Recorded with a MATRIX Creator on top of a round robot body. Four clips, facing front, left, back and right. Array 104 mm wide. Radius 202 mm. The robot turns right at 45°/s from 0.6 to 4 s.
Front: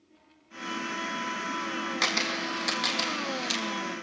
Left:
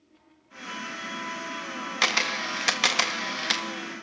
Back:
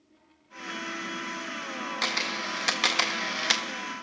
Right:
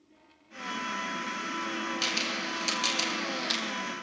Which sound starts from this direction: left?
A camera shutter, at 2.0 s.